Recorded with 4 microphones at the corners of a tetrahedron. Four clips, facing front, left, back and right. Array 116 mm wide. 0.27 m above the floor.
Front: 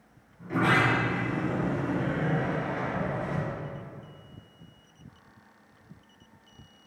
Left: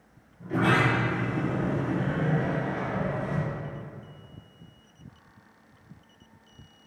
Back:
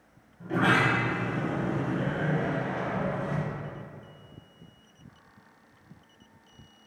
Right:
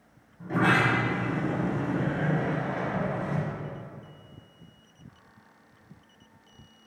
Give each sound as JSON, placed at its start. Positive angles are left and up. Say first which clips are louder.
{"t": 0.4, "sound": "a sliding door", "louder": "even, even", "azimuth_deg": -105, "distance_m": 1.6}